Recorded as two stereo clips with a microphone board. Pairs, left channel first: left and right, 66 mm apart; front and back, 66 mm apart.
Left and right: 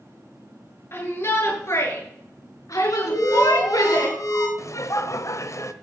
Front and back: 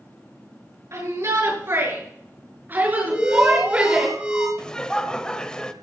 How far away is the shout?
About 8 m.